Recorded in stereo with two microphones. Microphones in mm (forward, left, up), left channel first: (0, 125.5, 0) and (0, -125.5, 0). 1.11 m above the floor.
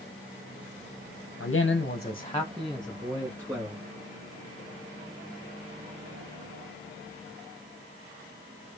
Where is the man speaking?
70° left (ahead or behind), 0.6 m; by 3.8 s 15° right (ahead or behind), 1.6 m.